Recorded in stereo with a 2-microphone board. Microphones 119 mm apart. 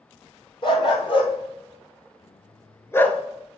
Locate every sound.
0.6 s a dog barking: 45° left (ahead or behind), 1.7 m; by 3.2 s 10° left (ahead or behind), 0.8 m